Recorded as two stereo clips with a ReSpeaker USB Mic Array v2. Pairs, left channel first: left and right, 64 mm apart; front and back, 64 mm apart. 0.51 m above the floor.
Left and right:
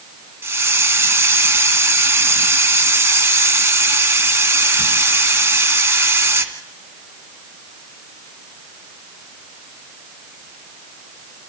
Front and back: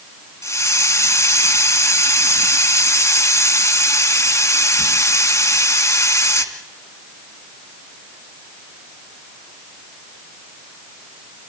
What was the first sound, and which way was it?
A hiss, 35° right.